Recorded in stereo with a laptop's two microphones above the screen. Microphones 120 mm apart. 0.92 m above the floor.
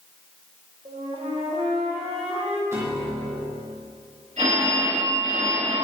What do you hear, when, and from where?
0.8 s a flute: 55° right (ahead or behind), 1.4 m
2.7 s a piano: 25° right (ahead or behind), 2.5 m
4.4 s a phone ringing: 85° right, 2.5 m